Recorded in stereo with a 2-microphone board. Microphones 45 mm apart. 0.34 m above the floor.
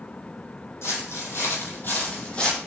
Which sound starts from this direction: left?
Footsteps, at 0.8 s.